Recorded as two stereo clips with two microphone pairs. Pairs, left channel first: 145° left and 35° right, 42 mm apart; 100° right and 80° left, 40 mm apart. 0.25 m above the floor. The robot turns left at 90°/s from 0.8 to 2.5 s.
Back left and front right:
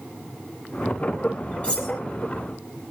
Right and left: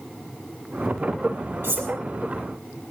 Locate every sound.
1.6 s cutlery clinking: 85° left, 4 m; by 1.9 s 60° left, 4 m